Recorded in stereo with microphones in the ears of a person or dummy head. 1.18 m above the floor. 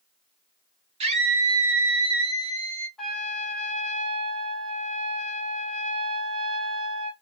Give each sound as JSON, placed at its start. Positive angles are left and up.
{"t": 1.0, "sound": "a scream", "side_deg": -30, "distance_m": 0.7}
{"t": 3.0, "sound": "a trumpet", "side_deg": 5, "distance_m": 0.7}